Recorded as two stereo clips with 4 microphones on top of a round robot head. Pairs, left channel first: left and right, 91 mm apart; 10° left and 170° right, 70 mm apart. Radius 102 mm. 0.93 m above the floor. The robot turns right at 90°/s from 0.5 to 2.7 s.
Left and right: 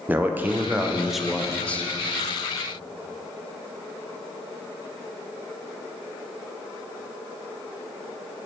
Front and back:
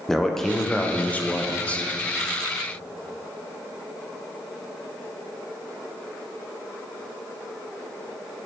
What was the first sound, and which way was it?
A man speaking, 65° right.